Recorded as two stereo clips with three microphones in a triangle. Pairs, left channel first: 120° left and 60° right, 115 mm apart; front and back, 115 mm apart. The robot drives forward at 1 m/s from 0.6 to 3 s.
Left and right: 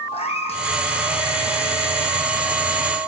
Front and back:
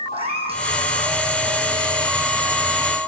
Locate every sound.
0.1 s a cat meowing: 150° left, 1.1 m